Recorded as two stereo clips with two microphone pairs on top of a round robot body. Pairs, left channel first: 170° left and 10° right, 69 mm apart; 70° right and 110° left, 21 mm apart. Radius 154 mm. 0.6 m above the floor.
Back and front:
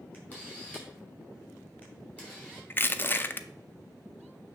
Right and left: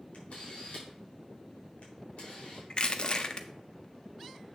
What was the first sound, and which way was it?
A camera shutter, 115° right.